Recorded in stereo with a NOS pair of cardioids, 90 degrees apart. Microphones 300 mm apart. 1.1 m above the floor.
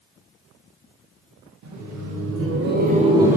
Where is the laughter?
70° right, 1.0 m; by 3.4 s 5° right, 0.7 m.